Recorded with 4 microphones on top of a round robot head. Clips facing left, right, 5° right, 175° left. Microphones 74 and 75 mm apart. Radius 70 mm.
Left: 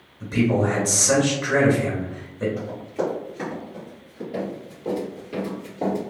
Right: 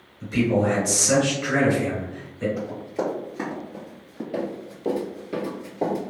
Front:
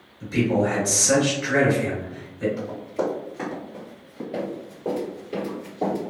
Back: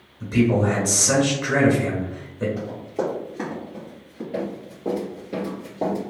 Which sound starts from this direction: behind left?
A man speaking, at 0.2 s.